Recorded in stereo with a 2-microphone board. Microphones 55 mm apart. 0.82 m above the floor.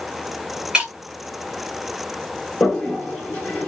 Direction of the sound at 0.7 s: 15° right (ahead or behind).